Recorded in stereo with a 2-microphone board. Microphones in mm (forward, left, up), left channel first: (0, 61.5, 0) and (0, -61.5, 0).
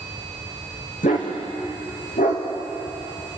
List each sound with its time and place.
1.0 s a dog barking: 85° left, 4.5 m